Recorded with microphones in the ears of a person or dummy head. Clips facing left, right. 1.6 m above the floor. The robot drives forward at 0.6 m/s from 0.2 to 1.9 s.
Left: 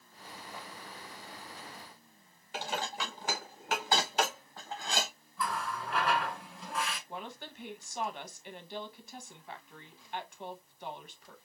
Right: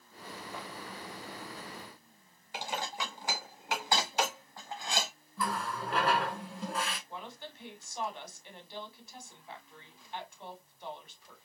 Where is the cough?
No cough in this recording.